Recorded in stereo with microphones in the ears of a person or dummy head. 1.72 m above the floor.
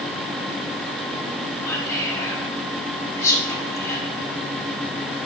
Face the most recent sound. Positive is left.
turn(degrees=15)  # may be behind; listen again after turning